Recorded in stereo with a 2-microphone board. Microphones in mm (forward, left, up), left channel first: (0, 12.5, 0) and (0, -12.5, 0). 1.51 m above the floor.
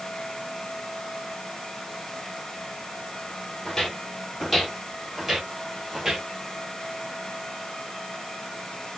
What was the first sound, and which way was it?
Footsteps, 15° left (ahead or behind).